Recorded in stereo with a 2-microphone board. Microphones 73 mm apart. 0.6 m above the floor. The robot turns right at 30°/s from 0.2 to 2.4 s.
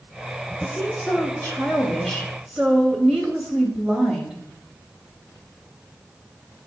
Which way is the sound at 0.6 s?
125° left.